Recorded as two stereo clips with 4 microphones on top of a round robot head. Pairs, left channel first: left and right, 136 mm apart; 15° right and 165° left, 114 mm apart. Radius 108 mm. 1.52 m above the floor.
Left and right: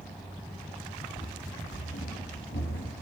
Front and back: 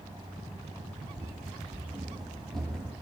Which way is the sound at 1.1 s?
115° left.